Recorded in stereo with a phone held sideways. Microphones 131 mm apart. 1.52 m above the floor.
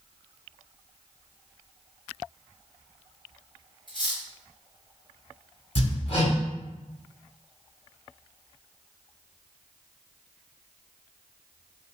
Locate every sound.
3.9 s cutlery clinking: 35° left (ahead or behind), 1.6 m
5.8 s hammering: 55° left (ahead or behind), 2.5 m